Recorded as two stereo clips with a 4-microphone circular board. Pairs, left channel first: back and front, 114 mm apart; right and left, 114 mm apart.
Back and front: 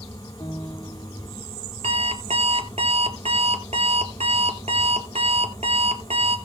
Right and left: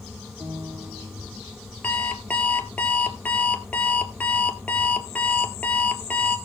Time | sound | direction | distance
0.4 | a piano | 125° left | 3 m
1.8 | an alarm clock | 15° right | 1.7 m